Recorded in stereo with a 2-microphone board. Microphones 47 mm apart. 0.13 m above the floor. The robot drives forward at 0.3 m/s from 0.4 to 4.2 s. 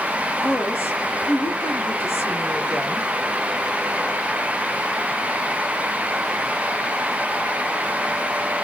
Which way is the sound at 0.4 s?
55° left (ahead or behind).